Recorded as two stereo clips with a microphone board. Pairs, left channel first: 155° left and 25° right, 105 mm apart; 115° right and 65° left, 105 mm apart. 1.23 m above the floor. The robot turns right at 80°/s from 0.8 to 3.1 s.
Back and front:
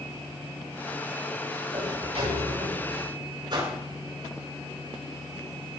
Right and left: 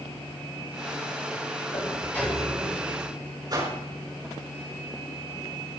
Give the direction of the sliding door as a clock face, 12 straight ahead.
2 o'clock.